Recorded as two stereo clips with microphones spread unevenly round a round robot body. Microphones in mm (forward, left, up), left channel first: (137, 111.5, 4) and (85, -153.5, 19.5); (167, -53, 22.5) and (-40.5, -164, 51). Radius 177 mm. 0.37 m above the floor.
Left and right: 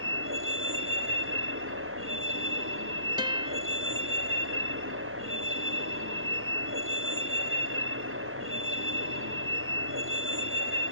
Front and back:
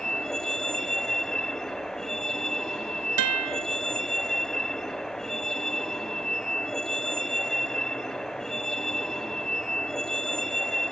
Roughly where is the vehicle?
Ahead right.